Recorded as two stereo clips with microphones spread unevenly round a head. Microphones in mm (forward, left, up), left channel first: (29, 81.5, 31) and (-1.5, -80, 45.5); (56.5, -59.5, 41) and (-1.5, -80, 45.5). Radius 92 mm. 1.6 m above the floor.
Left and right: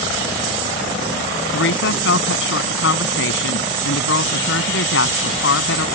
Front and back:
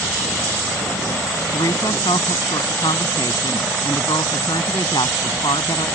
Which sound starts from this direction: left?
A woman speaking, at 1.5 s.